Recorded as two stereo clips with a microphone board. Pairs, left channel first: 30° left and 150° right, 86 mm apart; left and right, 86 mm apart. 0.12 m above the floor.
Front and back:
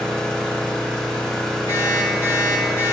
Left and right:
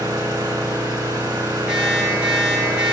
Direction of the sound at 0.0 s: 50° right.